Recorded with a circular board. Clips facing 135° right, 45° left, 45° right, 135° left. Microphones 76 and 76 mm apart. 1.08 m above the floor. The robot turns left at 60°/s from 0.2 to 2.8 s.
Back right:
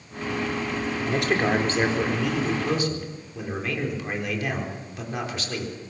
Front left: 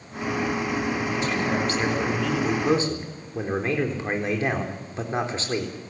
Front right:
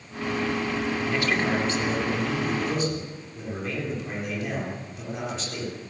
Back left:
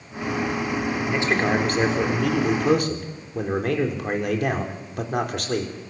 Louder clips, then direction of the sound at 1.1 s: Back right 2 dB, back left 4 dB; 150° right.